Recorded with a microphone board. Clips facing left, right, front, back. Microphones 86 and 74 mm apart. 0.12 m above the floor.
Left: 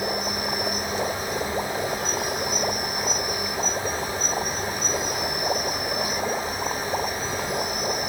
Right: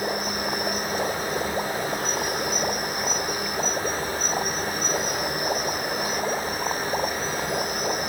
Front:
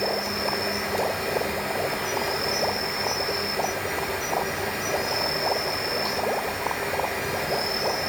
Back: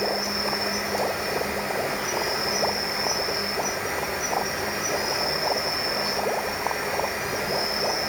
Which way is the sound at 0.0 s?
100° right.